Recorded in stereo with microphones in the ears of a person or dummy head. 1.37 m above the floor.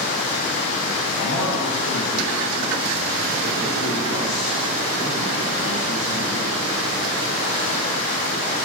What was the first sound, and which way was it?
Running water, 40° left (ahead or behind).